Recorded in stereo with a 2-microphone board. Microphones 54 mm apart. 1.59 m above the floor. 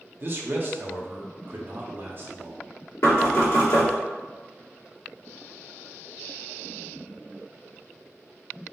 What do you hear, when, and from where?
0.2 s a man speaking: 45° right (ahead or behind), 0.7 m
3.0 s knocking: 65° left (ahead or behind), 1.5 m